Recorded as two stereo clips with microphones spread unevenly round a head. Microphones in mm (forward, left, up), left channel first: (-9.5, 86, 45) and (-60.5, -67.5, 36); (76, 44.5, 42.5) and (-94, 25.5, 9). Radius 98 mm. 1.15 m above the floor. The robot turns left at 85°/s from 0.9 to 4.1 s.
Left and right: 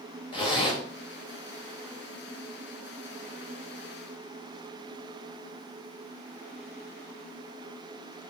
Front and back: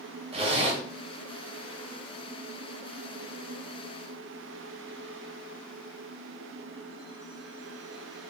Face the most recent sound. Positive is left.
turn(degrees=-140)